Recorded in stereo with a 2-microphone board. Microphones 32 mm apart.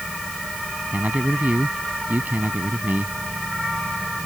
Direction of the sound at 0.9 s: 60° right (ahead or behind).